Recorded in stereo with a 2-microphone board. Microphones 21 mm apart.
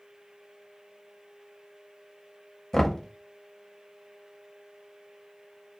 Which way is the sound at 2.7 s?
20° left (ahead or behind).